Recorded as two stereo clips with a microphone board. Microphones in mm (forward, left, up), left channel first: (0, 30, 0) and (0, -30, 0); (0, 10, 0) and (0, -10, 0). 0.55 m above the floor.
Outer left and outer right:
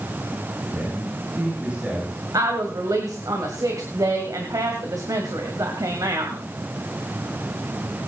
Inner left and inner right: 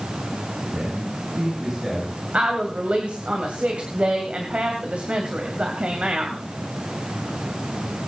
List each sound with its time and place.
0.7 s a man speaking: 25° right (ahead or behind), 7 m; by 2.2 s 30° right (ahead or behind), 8 m
2.3 s a woman speaking: 75° right (ahead or behind), 2.5 m